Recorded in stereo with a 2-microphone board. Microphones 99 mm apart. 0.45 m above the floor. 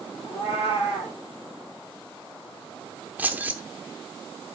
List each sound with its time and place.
0.2 s a cat meowing: 80° left, 4 m
3.2 s keys jangling: 20° right (ahead or behind), 0.7 m